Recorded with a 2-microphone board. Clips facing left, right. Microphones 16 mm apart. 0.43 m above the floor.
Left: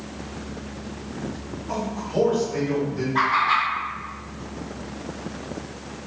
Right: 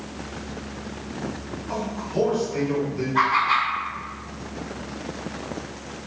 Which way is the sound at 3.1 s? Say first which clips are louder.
Even; 15° left (ahead or behind).